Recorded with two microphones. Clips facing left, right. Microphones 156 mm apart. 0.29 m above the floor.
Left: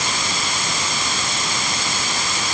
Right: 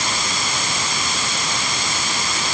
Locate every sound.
Only background noise.